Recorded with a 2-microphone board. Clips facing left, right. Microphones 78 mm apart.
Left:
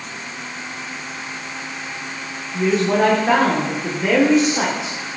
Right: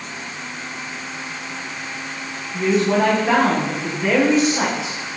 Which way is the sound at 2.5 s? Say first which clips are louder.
Even; 20° left (ahead or behind).